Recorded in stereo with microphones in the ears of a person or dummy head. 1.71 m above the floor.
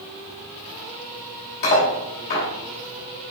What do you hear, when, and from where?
1.6 s cutlery clinking: 45° left (ahead or behind), 1.1 m